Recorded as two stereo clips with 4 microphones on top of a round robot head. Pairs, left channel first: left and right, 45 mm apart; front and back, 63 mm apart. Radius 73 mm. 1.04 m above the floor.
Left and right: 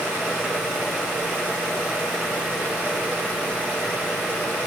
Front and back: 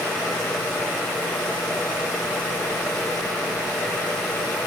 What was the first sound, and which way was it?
Only background noise.